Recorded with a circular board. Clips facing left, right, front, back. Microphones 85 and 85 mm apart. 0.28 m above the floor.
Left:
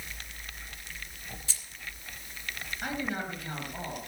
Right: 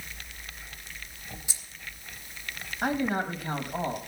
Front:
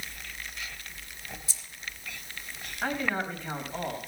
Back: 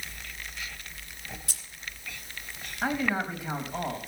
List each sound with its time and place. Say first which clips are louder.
1.5 s keys jangling: even, back 1 dB; 165° right, 2.5 m
2.8 s a man speaking: right 7 dB, back 2 dB; 105° right, 1.6 m